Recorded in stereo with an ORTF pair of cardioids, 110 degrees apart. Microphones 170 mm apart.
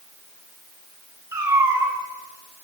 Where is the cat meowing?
15° right, 2.5 m.